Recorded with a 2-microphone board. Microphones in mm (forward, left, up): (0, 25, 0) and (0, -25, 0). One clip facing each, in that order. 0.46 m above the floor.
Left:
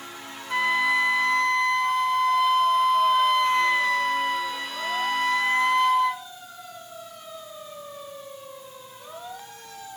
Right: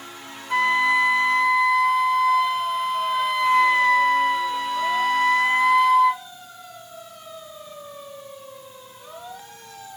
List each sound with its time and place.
0.5 s a flute: 5° right (ahead or behind), 0.8 m